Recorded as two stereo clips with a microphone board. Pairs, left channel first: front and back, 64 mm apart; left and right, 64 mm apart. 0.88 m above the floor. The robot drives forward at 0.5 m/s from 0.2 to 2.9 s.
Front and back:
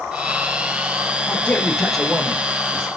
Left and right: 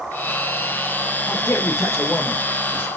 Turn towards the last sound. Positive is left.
turn(degrees=135)